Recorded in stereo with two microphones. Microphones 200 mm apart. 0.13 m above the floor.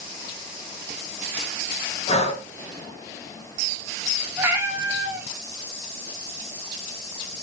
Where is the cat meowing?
15° right (ahead or behind), 0.5 m.